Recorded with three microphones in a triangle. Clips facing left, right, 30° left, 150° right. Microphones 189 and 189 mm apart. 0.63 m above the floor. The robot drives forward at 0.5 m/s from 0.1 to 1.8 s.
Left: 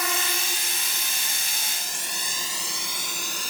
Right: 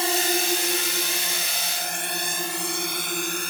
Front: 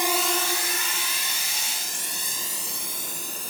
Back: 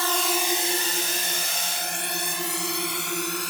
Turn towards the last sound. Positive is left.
turn(degrees=-125)